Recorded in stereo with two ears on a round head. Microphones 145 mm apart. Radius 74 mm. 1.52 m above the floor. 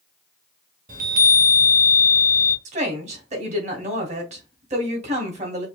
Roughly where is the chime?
Right.